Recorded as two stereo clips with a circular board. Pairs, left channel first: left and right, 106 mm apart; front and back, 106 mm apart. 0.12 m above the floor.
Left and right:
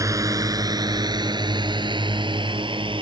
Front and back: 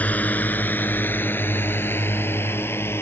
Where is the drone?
65° right.